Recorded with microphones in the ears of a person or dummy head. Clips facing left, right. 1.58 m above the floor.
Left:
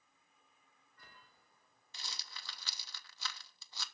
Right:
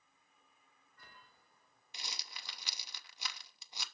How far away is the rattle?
About 0.7 m.